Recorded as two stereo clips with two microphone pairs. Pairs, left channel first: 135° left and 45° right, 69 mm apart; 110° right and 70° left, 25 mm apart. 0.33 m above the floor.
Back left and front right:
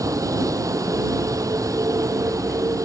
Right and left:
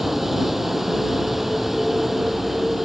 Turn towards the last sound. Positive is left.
turn(degrees=-10)